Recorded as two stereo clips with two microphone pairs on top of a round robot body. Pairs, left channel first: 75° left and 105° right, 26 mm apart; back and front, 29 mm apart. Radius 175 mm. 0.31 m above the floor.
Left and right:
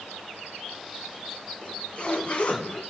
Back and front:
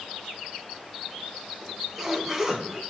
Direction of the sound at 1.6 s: 60° left.